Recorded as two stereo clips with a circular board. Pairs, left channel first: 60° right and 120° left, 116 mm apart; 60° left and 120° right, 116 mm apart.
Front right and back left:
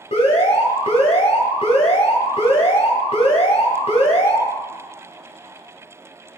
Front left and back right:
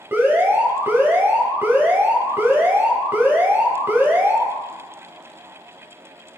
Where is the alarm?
50° right, 1.9 m.